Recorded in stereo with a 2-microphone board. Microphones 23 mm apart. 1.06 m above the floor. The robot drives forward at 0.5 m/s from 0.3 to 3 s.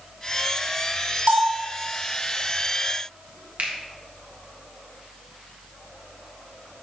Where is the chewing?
No chewing in this recording.